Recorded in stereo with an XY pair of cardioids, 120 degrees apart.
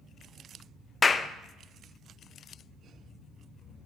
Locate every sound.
1.0 s a clap: 30° left, 0.5 m